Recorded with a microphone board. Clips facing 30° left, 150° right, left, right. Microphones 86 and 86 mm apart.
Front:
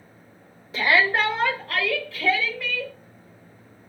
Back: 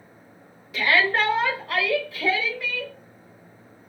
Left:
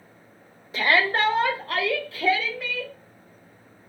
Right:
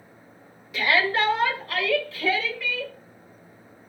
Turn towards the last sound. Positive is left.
turn(degrees=140)